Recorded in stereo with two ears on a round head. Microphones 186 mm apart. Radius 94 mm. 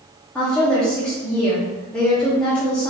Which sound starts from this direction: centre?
A woman speaking, at 0.3 s.